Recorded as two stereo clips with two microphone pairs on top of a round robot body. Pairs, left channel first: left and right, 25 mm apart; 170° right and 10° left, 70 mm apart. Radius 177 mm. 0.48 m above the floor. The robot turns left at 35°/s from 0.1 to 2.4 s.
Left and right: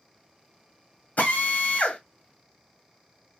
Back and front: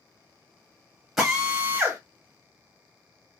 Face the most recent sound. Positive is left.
turn(degrees=55)